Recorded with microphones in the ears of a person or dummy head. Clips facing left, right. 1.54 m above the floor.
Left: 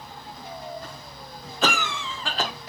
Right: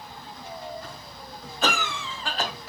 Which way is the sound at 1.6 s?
60° left (ahead or behind).